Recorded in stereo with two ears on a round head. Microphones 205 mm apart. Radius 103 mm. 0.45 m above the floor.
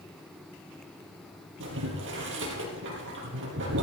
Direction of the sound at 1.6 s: 60° right (ahead or behind).